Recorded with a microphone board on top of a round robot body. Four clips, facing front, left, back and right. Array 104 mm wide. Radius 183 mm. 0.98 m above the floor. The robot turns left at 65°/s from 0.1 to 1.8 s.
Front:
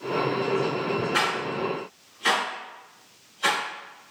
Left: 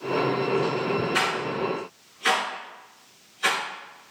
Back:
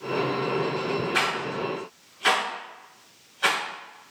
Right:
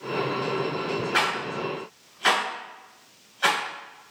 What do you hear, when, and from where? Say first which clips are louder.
1.1 s a rattle: left 1 dB, front 1 dB; 80° right, 1.6 m; by 3.6 s 120° right, 1.6 m